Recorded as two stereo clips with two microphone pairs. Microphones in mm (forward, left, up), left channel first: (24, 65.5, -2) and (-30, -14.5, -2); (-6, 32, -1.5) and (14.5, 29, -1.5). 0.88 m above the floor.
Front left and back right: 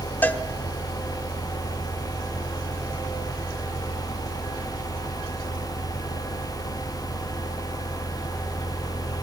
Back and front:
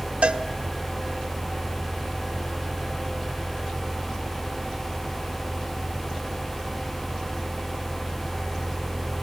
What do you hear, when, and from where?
0.2 s a cowbell: 15° right, 1.2 m